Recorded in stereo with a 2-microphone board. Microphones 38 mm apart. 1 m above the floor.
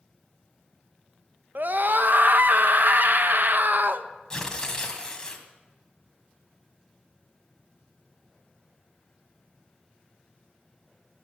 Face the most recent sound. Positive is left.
turn(degrees=15)  # may be behind; listen again after turning